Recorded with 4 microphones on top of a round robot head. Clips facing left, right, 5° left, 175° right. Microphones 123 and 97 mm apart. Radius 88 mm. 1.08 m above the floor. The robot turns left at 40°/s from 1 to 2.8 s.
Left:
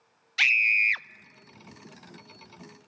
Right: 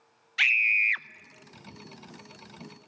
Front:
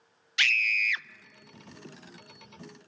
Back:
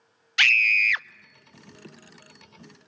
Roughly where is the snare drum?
I don't hear a snare drum.